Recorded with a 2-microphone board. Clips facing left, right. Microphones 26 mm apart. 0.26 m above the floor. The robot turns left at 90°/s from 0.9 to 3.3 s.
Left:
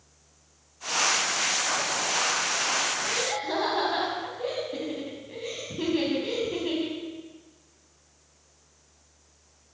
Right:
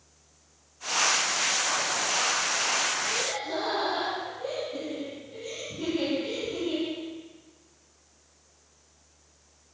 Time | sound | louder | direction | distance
3.0 | laughter | left 1 dB | 50° left (ahead or behind) | 2 m